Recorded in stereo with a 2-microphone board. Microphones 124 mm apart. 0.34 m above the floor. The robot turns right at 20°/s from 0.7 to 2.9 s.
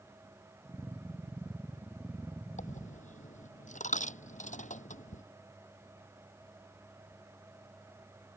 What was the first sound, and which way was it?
A dropped coin, 85° left.